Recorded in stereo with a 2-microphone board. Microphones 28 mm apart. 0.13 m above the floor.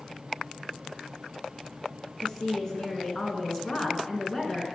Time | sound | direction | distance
2.2 | a woman speaking | 25° left (ahead or behind) | 1.5 m